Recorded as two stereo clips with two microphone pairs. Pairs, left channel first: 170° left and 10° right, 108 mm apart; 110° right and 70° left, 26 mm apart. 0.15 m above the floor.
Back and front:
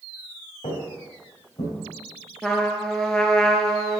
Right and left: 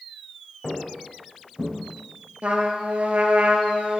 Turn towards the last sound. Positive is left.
turn(degrees=85)